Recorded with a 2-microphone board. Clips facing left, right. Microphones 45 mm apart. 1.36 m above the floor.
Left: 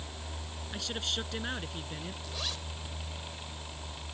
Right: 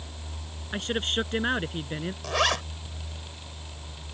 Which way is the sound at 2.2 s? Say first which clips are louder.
Right 18 dB; 70° right (ahead or behind).